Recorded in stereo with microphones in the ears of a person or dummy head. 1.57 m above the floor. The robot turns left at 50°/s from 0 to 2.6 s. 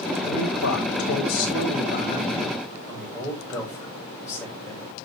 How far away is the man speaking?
About 7 m.